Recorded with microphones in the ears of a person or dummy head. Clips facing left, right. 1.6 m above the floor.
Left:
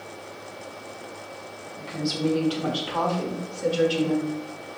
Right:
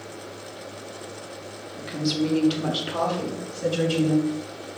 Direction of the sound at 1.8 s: 25° right (ahead or behind).